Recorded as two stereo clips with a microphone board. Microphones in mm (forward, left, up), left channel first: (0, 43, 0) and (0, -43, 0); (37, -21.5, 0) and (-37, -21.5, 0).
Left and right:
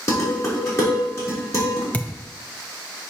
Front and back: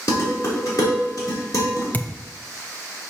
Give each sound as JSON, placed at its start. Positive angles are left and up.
{"t": 0.1, "sound": "dishes clattering", "azimuth_deg": 35, "distance_m": 2.5}
{"t": 1.9, "sound": "a thud", "azimuth_deg": 35, "distance_m": 0.6}